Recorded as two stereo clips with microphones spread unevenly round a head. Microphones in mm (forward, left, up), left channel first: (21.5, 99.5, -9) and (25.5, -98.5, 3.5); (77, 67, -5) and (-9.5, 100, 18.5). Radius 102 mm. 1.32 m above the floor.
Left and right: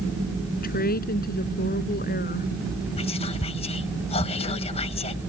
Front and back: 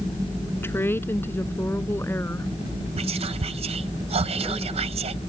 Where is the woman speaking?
45° left.